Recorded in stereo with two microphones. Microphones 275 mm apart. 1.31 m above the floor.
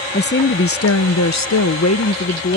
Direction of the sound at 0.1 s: 35° left (ahead or behind).